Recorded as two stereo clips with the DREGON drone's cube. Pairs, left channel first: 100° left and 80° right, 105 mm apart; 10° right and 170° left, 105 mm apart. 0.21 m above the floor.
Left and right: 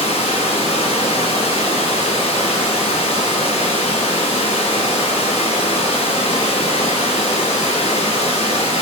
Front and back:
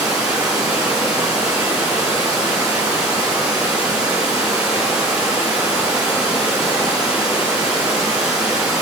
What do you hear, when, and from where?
0.0 s running water: 90° left, 2.0 m